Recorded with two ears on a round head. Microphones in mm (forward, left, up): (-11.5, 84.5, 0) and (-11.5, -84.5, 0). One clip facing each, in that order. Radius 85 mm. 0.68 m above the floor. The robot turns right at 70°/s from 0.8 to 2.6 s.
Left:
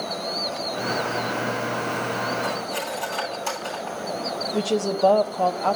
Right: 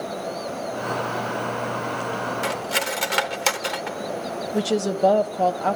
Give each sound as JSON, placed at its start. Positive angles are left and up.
{"t": 2.4, "sound": "cutlery clinking", "side_deg": -85, "distance_m": 1.0}
{"t": 4.5, "sound": "a woman speaking", "side_deg": -10, "distance_m": 0.5}